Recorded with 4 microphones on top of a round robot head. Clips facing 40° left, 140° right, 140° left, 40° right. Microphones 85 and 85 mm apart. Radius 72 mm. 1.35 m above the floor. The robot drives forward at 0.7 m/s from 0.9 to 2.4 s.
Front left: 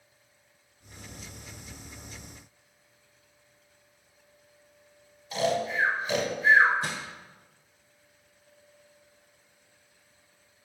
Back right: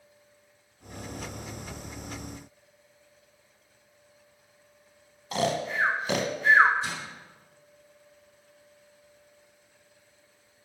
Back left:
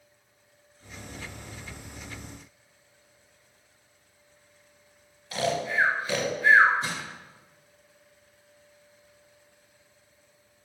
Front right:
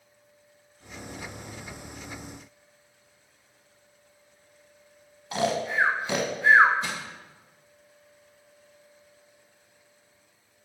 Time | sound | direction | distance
5.3 | snoring | 110° right | 0.9 m
6.8 | crushing | 85° left | 1.6 m